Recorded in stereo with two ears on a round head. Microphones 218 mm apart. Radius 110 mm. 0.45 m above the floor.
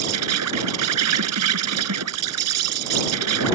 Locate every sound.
0.0 s an insect: 80° right